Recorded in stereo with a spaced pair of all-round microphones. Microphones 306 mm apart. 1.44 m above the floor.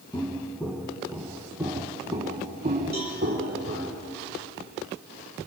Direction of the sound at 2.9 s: 40° left (ahead or behind).